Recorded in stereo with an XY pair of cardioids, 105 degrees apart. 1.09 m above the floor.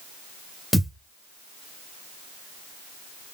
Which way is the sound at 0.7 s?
10° left.